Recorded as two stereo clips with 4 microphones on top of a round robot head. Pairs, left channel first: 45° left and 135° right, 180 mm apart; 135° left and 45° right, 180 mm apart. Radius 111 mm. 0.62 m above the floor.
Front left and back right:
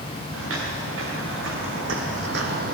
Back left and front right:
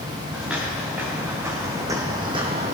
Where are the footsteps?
130° right, 3.5 m; by 2.8 s 95° right, 1.2 m.